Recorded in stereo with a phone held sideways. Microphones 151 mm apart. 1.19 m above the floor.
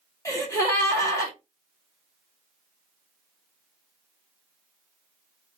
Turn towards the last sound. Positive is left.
turn(degrees=20)  # may be behind; listen again after turning